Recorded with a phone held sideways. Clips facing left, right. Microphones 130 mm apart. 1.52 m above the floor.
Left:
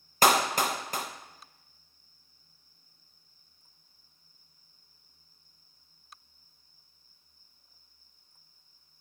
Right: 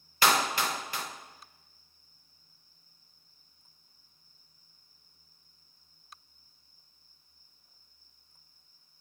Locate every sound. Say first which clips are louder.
0.2 s a clap: left 3 dB; 45° left (ahead or behind), 1.5 m